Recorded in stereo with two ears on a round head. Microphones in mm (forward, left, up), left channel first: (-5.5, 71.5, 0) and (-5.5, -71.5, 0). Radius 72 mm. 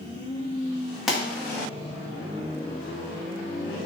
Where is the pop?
Centre (ahead or behind), 1.4 m.